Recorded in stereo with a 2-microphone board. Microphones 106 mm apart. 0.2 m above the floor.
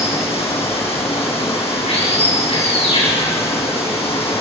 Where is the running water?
65° left (ahead or behind), 8.5 m.